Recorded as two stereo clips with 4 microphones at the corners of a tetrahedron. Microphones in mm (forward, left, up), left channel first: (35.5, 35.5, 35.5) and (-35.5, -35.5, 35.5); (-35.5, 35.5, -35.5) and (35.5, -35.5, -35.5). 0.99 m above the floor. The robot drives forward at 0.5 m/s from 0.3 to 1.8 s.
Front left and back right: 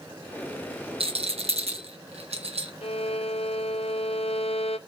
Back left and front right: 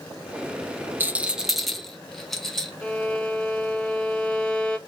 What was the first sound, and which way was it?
A rattle, 115° right.